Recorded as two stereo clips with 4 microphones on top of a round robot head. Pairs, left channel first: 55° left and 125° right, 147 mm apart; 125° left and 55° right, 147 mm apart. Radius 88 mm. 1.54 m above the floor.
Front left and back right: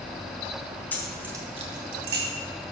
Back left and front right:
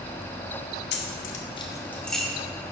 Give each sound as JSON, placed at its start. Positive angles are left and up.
{"t": 0.9, "sound": "keys jangling", "azimuth_deg": 130, "distance_m": 0.8}